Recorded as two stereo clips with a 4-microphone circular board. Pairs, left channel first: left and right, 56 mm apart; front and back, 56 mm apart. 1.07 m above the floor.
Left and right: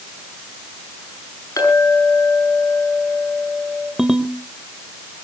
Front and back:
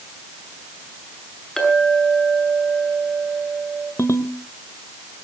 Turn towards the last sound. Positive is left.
turn(degrees=-10)